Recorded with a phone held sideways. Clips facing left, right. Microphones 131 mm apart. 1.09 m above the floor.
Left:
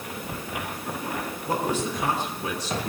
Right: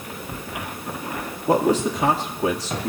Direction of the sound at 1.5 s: 85° right.